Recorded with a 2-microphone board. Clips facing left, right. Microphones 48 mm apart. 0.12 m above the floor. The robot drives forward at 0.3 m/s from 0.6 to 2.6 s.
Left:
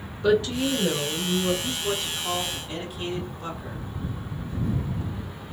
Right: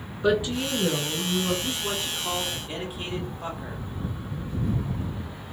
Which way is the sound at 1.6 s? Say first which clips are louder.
Left 1 dB; 15° right (ahead or behind).